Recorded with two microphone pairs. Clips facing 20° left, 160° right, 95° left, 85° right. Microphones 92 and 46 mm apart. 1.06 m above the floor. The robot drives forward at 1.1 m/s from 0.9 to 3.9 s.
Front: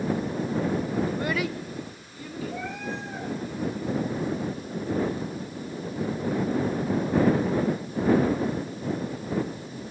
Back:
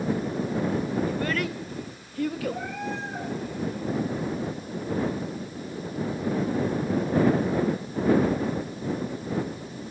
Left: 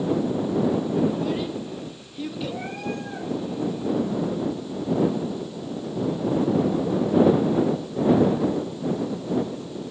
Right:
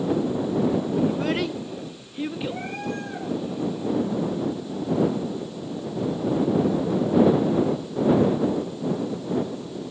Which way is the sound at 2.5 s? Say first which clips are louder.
Back 1 dB, even; 115° right.